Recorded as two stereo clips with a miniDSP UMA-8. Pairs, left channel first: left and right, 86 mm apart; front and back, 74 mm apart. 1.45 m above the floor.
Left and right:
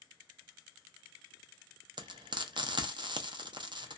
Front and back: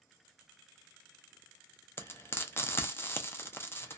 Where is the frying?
60° right, 0.5 m.